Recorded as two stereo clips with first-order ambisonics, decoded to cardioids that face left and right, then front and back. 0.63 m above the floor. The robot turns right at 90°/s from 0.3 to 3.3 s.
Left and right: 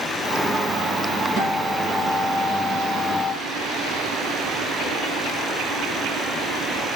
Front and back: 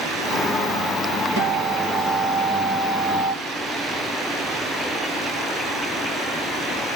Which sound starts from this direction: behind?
A guitar, at 1.4 s.